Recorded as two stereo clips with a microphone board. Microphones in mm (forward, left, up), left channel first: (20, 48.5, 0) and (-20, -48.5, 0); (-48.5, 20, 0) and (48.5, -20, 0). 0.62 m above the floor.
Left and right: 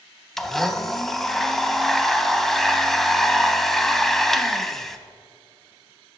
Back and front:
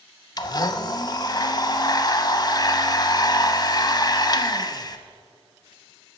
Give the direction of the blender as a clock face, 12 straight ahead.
7 o'clock.